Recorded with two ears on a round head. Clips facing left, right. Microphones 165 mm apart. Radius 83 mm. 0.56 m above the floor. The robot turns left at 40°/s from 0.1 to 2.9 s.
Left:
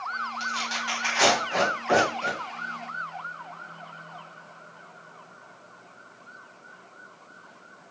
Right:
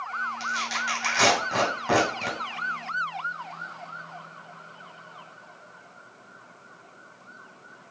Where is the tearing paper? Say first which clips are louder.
Even; 5° right (ahead or behind), 2.5 m; by 2.4 s 80° right, 2.5 m.